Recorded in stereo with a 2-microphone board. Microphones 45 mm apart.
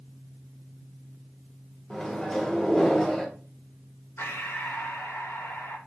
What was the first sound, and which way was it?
A microwave, 15° left (ahead or behind).